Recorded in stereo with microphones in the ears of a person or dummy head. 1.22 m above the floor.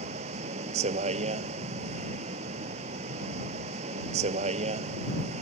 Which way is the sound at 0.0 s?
35° right (ahead or behind).